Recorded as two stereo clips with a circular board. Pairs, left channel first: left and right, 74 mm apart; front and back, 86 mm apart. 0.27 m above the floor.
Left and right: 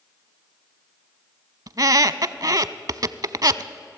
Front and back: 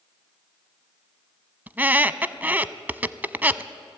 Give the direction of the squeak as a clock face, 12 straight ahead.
4 o'clock.